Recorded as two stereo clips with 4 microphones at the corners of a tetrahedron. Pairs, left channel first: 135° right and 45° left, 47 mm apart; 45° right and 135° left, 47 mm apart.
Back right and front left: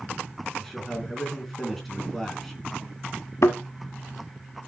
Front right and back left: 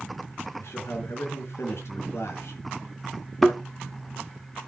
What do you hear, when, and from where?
0.6 s a man speaking: 50° right, 3 m
3.4 s a thud: 130° right, 0.8 m